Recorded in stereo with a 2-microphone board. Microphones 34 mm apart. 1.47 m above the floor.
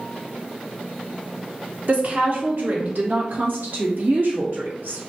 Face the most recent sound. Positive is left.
turn(degrees=-80)